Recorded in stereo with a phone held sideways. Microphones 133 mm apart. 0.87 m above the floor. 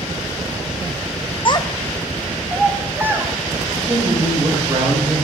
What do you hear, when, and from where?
1.4 s a child speaking: 40° left (ahead or behind), 0.5 m; by 3.3 s 20° right (ahead or behind), 1.5 m
3.8 s a man speaking: 40° right (ahead or behind), 4 m